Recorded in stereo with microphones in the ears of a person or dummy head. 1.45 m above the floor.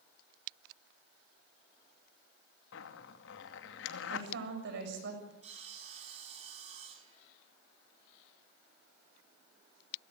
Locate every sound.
2.7 s a zipper: 70° left (ahead or behind), 2 m
4.1 s a woman speaking: 55° right (ahead or behind), 6.5 m
5.4 s sawing: 40° right (ahead or behind), 4.5 m